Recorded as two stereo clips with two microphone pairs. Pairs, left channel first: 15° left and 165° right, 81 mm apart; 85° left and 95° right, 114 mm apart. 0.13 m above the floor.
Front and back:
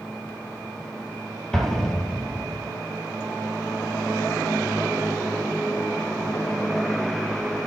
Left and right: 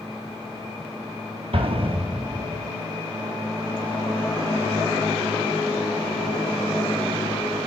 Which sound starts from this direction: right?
An explosion, at 1.5 s.